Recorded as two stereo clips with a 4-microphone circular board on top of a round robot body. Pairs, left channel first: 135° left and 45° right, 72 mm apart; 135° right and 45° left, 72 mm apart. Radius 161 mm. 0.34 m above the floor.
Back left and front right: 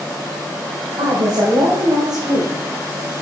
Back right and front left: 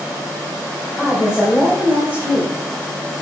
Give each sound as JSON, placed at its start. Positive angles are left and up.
{"t": 1.0, "sound": "a woman speaking", "azimuth_deg": -45, "distance_m": 3.0}